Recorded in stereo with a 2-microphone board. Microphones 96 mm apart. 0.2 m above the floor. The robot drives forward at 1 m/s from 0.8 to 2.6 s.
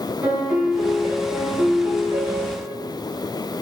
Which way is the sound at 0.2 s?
20° right (ahead or behind).